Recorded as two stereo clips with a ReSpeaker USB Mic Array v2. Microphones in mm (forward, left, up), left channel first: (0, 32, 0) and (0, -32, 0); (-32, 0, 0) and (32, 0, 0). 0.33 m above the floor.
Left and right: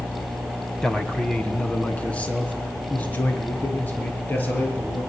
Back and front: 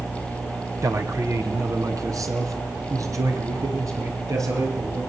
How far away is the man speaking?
About 2.5 m.